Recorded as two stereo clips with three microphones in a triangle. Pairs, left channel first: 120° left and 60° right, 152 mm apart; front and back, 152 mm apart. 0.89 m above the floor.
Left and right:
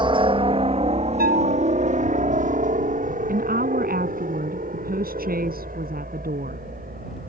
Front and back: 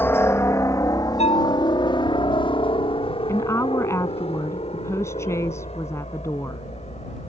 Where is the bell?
50° right.